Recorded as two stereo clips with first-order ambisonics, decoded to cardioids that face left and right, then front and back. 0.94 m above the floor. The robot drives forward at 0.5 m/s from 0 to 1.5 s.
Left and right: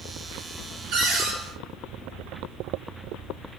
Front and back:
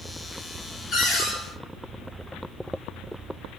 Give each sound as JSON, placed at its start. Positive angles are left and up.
{"t": 0.9, "sound": "a cupboard door", "azimuth_deg": -55, "distance_m": 1.0}